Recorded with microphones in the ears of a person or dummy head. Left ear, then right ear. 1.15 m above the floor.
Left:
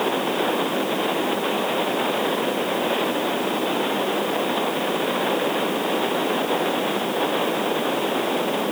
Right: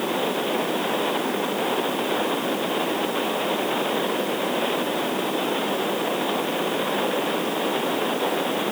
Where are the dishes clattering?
I don't hear dishes clattering.